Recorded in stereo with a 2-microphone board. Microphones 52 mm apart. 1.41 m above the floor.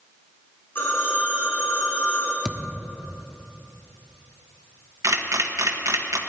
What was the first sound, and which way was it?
A phone ringing, 45° left (ahead or behind).